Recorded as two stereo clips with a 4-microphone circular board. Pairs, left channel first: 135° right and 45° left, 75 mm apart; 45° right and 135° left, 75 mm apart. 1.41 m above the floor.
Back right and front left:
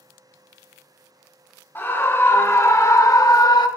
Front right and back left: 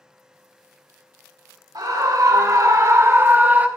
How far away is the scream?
About 2 m.